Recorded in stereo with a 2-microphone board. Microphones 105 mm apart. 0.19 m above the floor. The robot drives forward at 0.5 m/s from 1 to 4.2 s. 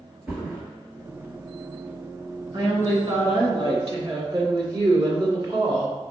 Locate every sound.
0.3 s a thud: 15° right (ahead or behind), 1.8 m
2.5 s a woman speaking: 45° right (ahead or behind), 1.6 m; by 5.9 s 50° right (ahead or behind), 1.5 m